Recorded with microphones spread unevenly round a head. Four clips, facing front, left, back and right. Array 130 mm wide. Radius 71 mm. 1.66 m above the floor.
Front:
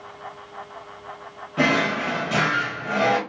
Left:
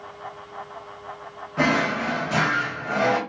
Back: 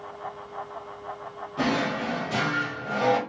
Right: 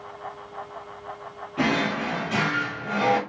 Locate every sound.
1.6 s a drawer: 35° left, 3 m